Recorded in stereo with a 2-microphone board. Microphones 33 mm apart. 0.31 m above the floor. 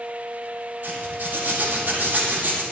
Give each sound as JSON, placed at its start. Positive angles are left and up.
{"t": 0.8, "sound": "a zipper", "side_deg": -70, "distance_m": 8.5}